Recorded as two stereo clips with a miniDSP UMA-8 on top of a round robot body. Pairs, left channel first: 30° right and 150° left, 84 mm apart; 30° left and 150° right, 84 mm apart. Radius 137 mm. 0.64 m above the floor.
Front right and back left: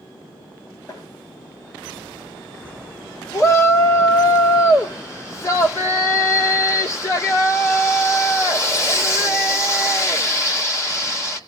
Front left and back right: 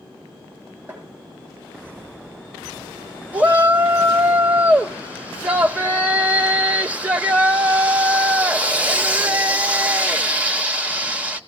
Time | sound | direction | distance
0.9 | tapping | 80° right | 7.5 m
3.3 | a shout | 80° right | 2.5 m